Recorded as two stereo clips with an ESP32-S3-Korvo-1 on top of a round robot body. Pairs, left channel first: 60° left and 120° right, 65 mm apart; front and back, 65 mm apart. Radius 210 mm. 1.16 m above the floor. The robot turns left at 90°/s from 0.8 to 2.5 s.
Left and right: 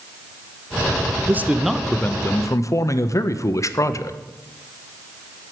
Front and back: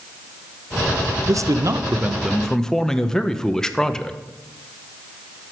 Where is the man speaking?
170° right, 0.9 m; by 4.2 s 80° left, 0.9 m.